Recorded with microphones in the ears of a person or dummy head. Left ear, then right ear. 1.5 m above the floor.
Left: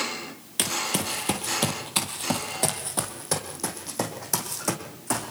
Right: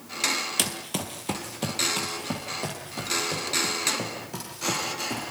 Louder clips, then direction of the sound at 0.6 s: Left 3 dB; 5° right (ahead or behind).